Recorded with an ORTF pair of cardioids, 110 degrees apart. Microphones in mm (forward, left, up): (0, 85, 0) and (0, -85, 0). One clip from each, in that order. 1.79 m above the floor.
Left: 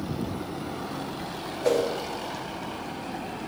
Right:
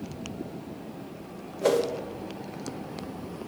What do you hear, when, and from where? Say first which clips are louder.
1.6 s a whoosh: even; 70° right, 2.5 m